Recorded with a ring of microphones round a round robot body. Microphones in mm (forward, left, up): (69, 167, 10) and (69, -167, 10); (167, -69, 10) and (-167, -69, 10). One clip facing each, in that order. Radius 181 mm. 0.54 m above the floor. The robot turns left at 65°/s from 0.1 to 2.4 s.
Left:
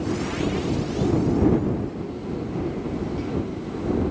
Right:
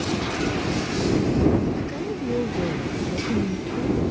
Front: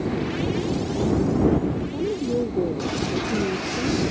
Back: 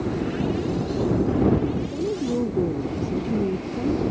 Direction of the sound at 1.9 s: 80° right.